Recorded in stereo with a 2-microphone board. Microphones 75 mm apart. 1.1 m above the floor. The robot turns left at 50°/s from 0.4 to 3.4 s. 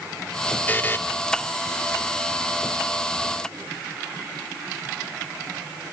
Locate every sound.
0.7 s a buzzer: 25° left (ahead or behind), 0.8 m; by 1.0 s 30° left (ahead or behind), 0.8 m